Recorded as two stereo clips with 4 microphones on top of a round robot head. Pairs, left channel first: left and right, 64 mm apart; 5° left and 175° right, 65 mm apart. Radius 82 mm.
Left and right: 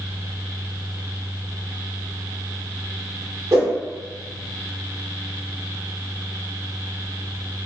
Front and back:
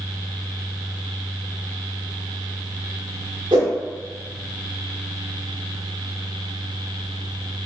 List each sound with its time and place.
3.5 s a whoosh: 150° right, 0.6 m